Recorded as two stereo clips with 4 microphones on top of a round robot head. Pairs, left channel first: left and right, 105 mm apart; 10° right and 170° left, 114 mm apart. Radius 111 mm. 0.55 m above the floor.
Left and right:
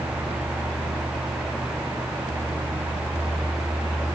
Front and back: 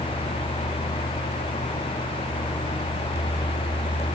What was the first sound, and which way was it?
Only background noise.